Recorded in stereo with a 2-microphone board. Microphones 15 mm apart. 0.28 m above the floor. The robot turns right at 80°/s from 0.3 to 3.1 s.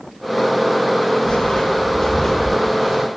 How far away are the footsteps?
About 1.0 m.